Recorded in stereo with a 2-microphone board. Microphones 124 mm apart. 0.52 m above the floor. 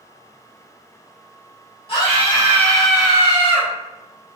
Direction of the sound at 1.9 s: 50° left (ahead or behind).